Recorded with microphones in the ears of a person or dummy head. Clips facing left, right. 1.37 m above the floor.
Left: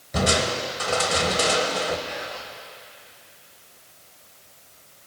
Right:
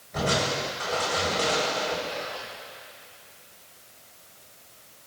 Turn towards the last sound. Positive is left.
turn(degrees=20)  # may be behind; listen again after turning